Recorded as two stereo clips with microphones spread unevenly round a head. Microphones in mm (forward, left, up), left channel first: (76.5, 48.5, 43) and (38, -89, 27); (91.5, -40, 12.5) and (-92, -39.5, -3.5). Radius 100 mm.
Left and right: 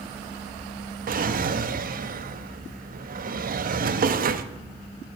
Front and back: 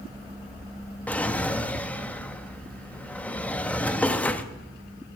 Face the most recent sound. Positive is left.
turn(degrees=-80)